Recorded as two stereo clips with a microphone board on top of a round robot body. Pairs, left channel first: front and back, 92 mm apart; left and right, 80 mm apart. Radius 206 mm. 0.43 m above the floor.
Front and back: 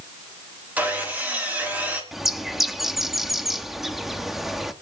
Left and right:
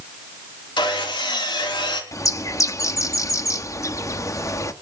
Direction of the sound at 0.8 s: 105° left.